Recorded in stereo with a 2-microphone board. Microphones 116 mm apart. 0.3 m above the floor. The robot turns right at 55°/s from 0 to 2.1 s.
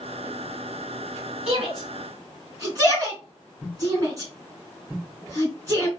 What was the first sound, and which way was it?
A shout, 60° right (ahead or behind).